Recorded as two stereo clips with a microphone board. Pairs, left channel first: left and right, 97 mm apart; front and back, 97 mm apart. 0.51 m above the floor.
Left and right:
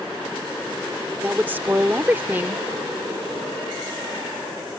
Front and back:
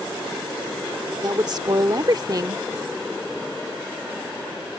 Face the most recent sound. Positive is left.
turn(degrees=-155)